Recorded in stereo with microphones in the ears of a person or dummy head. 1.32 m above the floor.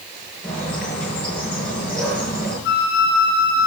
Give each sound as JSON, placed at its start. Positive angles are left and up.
{"t": 0.4, "sound": "a bird", "side_deg": 5, "distance_m": 4.5}
{"t": 2.6, "sound": "a flute", "side_deg": 65, "distance_m": 3.0}